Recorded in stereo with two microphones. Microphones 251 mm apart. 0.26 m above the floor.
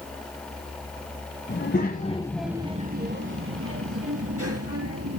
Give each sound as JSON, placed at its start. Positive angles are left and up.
{"t": 1.5, "sound": "a child speaking", "side_deg": 50, "distance_m": 1.4}